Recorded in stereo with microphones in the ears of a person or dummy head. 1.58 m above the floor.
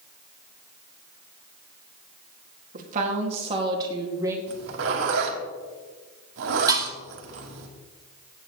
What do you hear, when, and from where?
2.7 s a woman speaking: 40° right (ahead or behind), 2.5 m; by 4.4 s 10° right (ahead or behind), 2.5 m
4.5 s a zipper: 60° right (ahead or behind), 2.5 m
6.7 s dishes clattering: 25° right (ahead or behind), 1.0 m